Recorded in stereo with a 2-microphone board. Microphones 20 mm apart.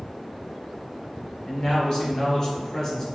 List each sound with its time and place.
1.5 s a man speaking: 40° left (ahead or behind), 1.4 m; by 3.0 s 25° left (ahead or behind), 1.5 m